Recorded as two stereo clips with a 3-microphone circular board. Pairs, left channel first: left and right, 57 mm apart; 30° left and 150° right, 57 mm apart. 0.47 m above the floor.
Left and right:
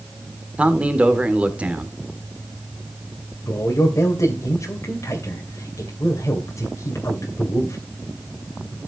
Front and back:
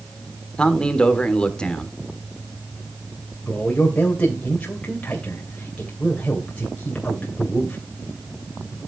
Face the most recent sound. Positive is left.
turn(degrees=95)